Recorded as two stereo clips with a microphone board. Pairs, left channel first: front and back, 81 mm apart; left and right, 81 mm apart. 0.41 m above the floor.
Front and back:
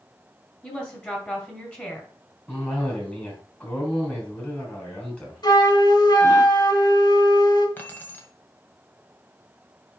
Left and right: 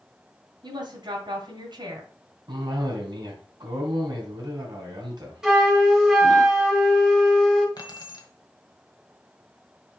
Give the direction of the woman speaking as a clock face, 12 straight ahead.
2 o'clock.